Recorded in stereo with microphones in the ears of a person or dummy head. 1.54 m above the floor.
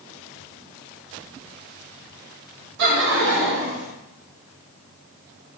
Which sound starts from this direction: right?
Laughter, at 2.8 s.